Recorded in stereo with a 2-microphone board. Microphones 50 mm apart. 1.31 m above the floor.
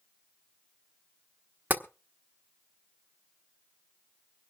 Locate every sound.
1.7 s tapping: 35° right (ahead or behind), 1.1 m